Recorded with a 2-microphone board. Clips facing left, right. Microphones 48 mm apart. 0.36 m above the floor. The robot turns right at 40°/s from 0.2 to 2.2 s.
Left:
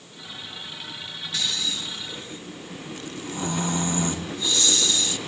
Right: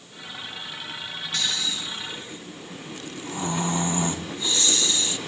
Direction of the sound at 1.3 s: 175° left.